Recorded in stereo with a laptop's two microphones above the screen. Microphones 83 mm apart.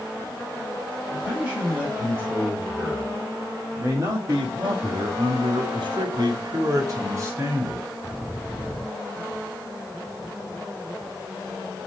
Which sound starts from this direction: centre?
A man speaking, at 1.1 s.